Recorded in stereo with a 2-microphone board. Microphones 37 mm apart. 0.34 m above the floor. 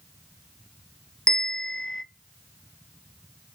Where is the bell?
20° left (ahead or behind), 0.6 m.